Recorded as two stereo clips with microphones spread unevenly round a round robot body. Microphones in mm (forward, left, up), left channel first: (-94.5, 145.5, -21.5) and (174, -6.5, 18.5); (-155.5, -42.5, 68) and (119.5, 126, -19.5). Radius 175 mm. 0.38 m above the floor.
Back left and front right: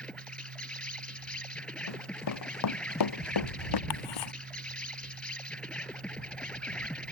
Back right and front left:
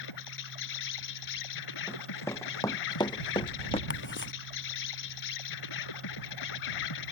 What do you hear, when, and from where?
0.0 s an insect: 120° right
1.9 s running footsteps: 130° left; by 3.8 s 140° left
3.9 s ticking: 155° left